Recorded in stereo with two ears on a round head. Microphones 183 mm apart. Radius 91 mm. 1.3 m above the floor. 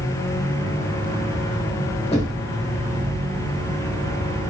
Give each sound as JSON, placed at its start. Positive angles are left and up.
{"t": 2.1, "sound": "knocking", "side_deg": 30, "distance_m": 1.4}